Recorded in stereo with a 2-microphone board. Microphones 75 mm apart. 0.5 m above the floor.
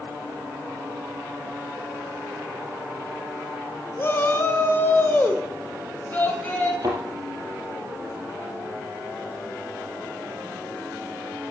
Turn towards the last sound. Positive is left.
turn(degrees=-50)  # may be behind; listen again after turning